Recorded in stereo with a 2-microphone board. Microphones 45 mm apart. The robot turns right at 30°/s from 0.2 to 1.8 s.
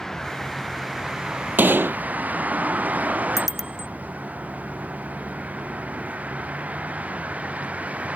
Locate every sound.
0.0 s a vehicle: 10° left (ahead or behind); by 8.2 s 30° right (ahead or behind)
1.6 s a gunshot: 45° right (ahead or behind); by 2.0 s 50° right (ahead or behind)
3.4 s a bicycle bell: 5° right (ahead or behind)